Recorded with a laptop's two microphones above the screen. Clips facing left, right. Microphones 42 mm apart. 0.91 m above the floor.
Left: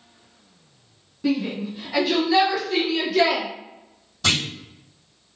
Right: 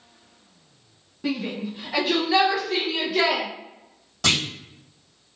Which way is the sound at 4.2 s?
75° right (ahead or behind).